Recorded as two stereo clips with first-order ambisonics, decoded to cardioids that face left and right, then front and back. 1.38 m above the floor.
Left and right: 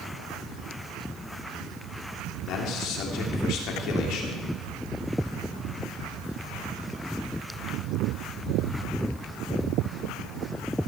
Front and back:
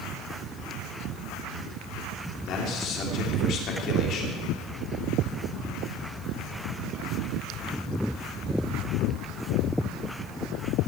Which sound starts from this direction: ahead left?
A man speaking, at 2.5 s.